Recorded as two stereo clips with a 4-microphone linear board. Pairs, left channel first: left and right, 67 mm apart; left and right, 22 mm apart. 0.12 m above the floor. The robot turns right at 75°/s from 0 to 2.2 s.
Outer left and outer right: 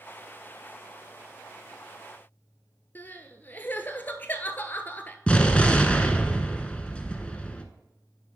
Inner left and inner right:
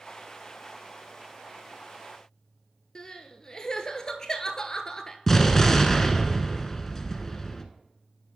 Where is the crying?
30° left (ahead or behind), 0.6 m.